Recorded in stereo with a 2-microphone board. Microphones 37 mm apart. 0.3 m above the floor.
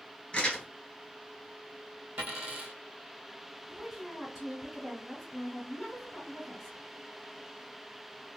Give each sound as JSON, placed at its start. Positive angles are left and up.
{"t": 0.3, "sound": "crumpling", "side_deg": 20, "distance_m": 1.6}
{"t": 2.2, "sound": "a dropped coin", "side_deg": -45, "distance_m": 1.4}
{"t": 3.7, "sound": "a woman speaking", "side_deg": 0, "distance_m": 1.3}